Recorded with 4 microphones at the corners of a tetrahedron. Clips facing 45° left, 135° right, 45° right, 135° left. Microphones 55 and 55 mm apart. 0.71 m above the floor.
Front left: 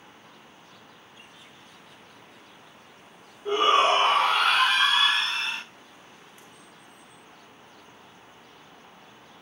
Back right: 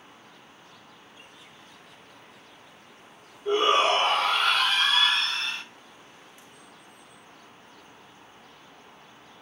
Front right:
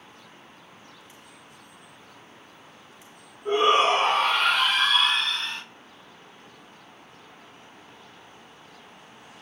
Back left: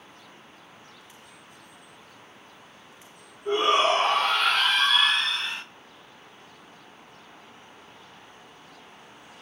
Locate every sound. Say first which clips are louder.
3.5 s a shout: front left 1 dB, front right 2 dB; 5° left, 1.4 m; by 5.6 s 90° left, 0.9 m